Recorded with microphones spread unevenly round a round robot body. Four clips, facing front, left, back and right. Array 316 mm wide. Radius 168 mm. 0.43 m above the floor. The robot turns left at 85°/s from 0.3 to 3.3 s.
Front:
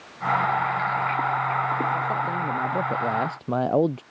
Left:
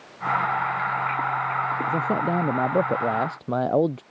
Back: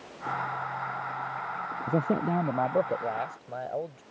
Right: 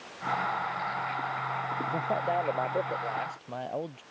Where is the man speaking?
160° left; by 4.0 s 40° left.